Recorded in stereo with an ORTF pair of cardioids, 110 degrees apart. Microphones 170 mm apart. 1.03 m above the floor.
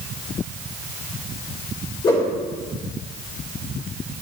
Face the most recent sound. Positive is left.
turn(degrees=25)